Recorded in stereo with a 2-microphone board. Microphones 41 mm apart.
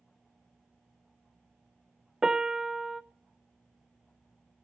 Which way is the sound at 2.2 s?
15° right (ahead or behind).